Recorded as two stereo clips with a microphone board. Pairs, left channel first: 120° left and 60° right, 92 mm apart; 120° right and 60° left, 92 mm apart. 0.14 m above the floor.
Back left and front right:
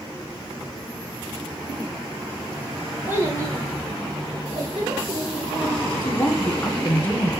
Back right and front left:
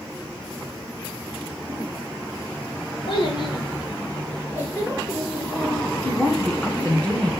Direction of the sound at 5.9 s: 170° left.